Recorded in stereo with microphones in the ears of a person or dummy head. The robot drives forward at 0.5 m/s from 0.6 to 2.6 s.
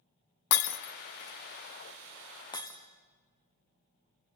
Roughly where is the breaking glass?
Left.